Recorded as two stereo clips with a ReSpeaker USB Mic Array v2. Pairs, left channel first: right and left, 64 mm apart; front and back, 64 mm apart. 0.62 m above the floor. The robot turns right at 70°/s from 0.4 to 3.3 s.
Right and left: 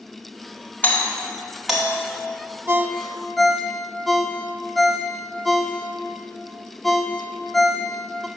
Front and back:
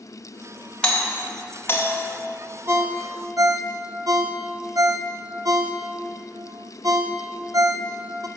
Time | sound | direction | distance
0.8 | a doorbell | 60° right | 1.5 m
2.7 | a ringtone | 140° left | 0.6 m